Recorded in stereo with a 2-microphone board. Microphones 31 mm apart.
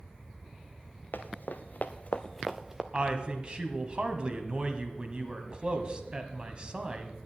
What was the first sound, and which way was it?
Running footsteps, 85° left.